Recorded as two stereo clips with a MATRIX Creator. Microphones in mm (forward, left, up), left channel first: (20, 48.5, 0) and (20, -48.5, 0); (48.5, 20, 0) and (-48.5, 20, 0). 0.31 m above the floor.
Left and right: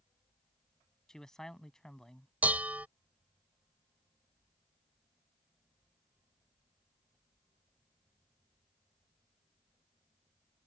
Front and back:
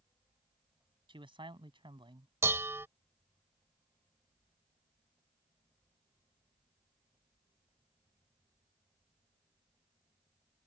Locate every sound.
1.1 s a man speaking: 175° left
2.4 s dishes clattering: 145° right